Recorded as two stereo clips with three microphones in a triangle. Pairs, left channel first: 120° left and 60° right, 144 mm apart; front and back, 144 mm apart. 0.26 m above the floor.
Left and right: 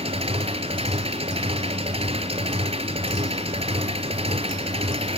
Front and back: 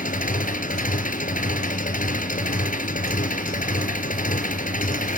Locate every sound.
0.0 s an engine running: 15° right, 2.0 m